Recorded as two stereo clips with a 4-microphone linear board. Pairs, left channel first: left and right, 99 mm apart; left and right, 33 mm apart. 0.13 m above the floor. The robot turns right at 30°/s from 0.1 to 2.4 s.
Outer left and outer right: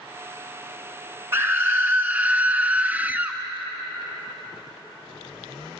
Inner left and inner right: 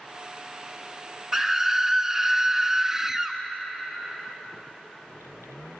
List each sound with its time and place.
1.3 s a scream: 20° right (ahead or behind), 1.4 m; by 3.4 s 15° right (ahead or behind), 1.4 m